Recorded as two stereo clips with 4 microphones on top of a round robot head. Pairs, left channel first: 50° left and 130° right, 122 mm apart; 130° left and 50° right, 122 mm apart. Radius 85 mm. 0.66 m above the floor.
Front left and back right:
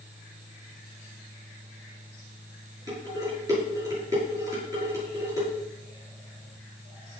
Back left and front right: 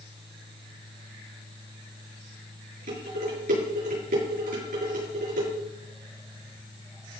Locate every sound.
2.9 s dishes clattering: 65° right, 7.5 m